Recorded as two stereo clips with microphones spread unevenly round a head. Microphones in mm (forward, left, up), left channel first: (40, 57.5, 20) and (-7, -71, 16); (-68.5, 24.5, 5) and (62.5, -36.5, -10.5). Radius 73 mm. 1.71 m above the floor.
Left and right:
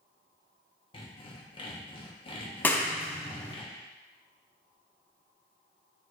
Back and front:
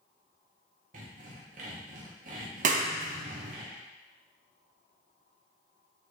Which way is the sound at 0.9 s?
15° left.